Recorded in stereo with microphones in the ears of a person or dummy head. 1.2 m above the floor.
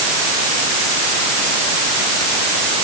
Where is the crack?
No crack in this recording.